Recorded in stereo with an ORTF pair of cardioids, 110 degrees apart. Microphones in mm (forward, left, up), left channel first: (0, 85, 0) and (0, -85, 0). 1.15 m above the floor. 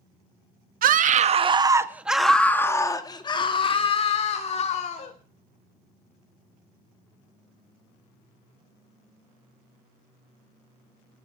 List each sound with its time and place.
0.8 s a scream: 55° right, 1.5 m; by 5.1 s 40° left, 4 m